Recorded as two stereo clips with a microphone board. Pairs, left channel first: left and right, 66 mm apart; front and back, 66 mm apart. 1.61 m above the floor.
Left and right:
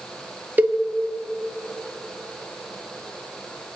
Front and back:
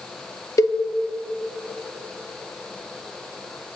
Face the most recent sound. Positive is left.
turn(degrees=-30)